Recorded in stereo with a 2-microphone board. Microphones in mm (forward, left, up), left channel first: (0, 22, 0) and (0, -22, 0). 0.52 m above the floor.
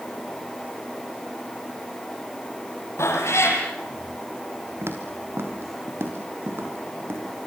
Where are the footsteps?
60° right (ahead or behind), 4.5 m; by 7.2 s 55° right (ahead or behind), 7 m.